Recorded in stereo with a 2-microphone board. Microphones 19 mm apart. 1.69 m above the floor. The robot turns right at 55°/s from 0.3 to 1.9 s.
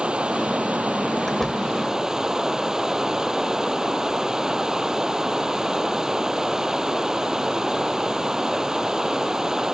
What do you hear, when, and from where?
0.0 s running water: 115° right; by 9.7 s 25° right
1.3 s a door slam: 25° left (ahead or behind); by 1.7 s centre (ahead or behind)